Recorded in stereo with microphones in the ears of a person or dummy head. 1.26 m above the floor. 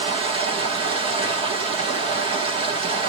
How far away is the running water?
About 1.0 m.